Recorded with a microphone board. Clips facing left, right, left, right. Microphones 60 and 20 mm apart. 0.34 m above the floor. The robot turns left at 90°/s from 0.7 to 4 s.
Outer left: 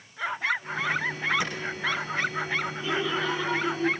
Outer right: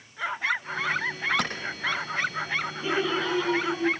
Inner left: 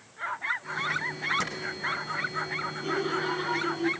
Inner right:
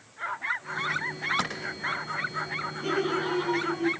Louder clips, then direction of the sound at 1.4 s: Outer right 1 dB, inner right 1 dB; 80° right.